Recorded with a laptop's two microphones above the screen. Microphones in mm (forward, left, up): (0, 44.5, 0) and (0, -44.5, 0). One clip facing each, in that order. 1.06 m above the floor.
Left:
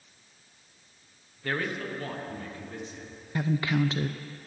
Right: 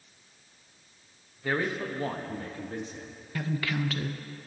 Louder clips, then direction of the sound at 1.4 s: Right 2 dB; 10° right (ahead or behind).